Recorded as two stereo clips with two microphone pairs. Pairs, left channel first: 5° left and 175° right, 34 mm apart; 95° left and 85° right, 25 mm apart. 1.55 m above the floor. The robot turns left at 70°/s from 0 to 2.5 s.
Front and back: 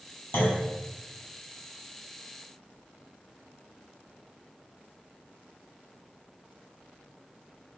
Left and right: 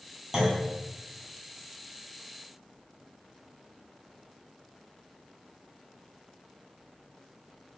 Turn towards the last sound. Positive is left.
turn(degrees=-170)